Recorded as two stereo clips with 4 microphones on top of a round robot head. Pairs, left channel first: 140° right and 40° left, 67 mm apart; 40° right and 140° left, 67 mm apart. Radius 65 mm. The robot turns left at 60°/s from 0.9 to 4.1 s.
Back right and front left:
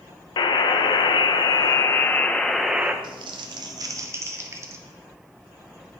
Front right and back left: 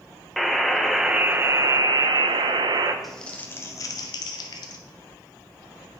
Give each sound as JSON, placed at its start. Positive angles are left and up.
{"t": 0.4, "sound": "a buzzer", "azimuth_deg": -130, "distance_m": 0.8}
{"t": 3.0, "sound": "crumpling", "azimuth_deg": 50, "distance_m": 0.9}